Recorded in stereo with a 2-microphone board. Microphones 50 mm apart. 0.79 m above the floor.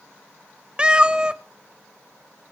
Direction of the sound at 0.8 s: 20° right (ahead or behind).